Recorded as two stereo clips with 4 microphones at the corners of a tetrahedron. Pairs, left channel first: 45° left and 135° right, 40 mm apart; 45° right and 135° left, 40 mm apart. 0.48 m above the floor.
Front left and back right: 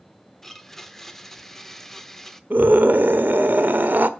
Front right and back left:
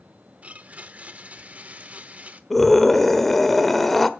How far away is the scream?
About 1.3 m.